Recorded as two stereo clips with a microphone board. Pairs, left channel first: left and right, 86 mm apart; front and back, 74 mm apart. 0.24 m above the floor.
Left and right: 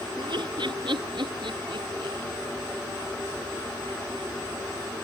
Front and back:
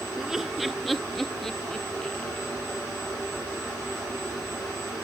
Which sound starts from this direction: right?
Laughter, at 0.2 s.